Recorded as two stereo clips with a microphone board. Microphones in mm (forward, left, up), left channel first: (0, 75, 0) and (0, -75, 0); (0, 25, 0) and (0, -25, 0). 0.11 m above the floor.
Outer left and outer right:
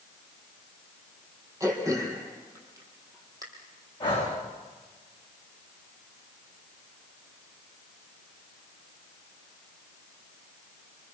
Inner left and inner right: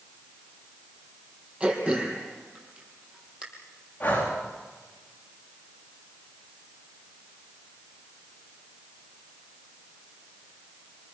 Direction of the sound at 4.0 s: 30° left (ahead or behind).